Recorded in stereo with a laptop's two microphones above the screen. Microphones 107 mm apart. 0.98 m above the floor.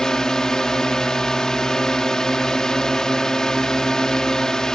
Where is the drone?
5° left (ahead or behind).